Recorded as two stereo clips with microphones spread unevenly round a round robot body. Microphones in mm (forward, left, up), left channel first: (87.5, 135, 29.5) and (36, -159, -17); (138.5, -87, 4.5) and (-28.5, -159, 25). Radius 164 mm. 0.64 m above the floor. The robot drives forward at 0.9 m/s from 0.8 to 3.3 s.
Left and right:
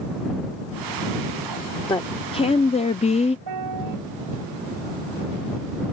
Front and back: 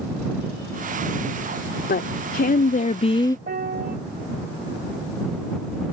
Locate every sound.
1.9 s a woman speaking: 5° left; by 3.4 s 20° left
3.5 s a piano: 125° right